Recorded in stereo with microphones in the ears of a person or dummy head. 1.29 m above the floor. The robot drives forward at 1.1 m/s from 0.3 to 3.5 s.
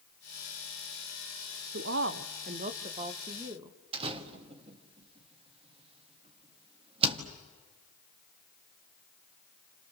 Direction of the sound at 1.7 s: 50° right (ahead or behind).